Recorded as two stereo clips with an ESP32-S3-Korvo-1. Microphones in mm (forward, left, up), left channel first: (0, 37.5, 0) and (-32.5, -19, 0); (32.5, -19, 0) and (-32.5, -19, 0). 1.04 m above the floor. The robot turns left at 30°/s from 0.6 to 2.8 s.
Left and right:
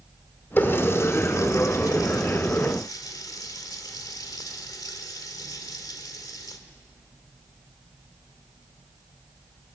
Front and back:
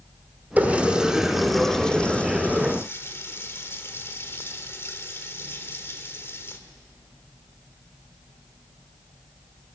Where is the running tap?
115° left, 1.9 m; by 6.6 s 50° left, 1.9 m.